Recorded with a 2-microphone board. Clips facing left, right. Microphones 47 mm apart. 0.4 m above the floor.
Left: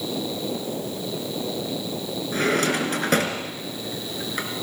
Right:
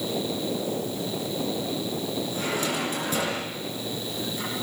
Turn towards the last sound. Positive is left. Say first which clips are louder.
# left 9 dB
turn(degrees=60)  # may be behind; listen again after turning